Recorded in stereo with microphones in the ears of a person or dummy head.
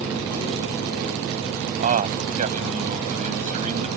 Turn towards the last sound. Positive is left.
turn(degrees=-40)  # may be behind; listen again after turning